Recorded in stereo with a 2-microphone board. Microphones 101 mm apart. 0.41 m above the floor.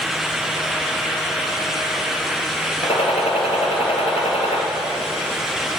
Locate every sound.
2.8 s a gunshot: 80° left, 2.5 m